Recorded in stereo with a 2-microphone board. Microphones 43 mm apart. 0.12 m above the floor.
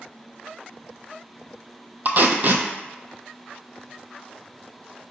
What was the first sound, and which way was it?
Tape being pulled, 45° right (ahead or behind).